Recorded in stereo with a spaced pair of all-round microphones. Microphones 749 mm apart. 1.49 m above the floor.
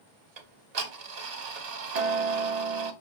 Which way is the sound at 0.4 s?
60° right (ahead or behind).